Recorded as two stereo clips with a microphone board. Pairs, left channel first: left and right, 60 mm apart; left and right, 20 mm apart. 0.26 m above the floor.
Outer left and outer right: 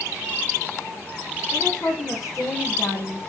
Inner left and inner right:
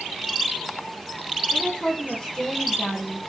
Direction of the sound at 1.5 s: 55° left (ahead or behind).